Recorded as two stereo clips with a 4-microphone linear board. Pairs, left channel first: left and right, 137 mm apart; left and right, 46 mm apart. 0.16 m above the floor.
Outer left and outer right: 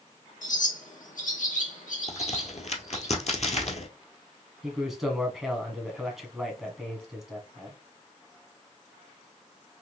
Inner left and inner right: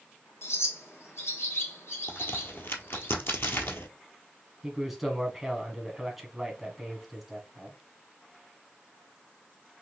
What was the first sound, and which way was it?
A bird, 85° left.